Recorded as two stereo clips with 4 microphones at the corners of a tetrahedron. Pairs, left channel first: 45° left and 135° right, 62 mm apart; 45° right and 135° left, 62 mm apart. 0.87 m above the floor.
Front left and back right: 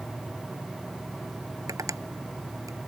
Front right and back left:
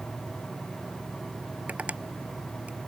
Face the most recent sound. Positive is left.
turn(degrees=-160)